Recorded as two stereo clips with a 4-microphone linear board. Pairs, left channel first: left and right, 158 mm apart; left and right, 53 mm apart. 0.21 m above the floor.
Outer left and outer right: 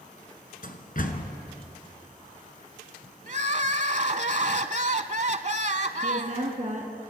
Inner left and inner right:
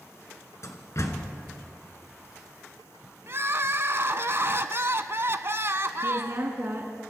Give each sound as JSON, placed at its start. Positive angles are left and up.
{"t": 0.6, "sound": "a door slam", "side_deg": 60, "distance_m": 2.0}
{"t": 3.3, "sound": "crying", "side_deg": -50, "distance_m": 0.8}
{"t": 6.0, "sound": "a woman speaking", "side_deg": -50, "distance_m": 2.5}